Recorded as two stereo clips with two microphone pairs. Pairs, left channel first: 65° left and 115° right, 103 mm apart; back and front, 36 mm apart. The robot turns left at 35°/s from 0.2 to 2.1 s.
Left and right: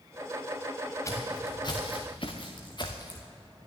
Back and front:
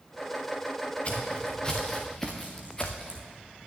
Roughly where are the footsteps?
Behind left.